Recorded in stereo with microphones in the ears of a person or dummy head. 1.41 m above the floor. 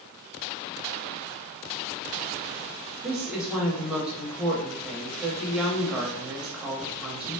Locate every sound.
3.0 s a woman speaking: 5° right (ahead or behind), 0.9 m